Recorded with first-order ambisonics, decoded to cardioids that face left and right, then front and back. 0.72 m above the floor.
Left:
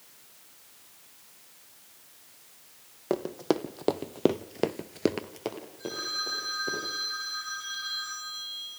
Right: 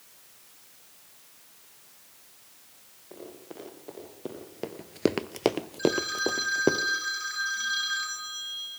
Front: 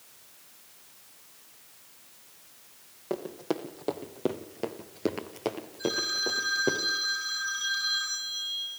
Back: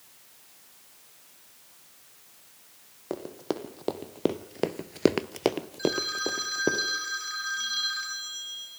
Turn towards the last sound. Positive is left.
turn(degrees=-125)